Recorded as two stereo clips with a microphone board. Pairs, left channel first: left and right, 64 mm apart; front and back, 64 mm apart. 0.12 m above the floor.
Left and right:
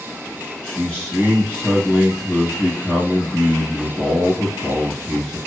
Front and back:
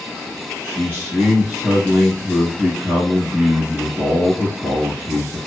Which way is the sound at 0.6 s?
140° left.